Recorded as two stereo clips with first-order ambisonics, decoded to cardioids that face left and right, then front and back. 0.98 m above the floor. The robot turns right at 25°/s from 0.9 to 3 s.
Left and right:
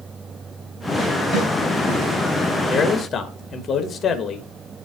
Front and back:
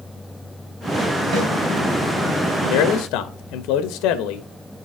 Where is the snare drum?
165° left, 4 m; by 1.5 s 170° left, 4 m.